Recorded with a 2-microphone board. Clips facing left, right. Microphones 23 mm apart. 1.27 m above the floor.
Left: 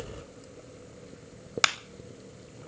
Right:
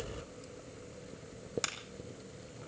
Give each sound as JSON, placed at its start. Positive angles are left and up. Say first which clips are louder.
{"t": 1.6, "sound": "a clap", "louder": "left 15 dB", "side_deg": 50, "distance_m": 0.7}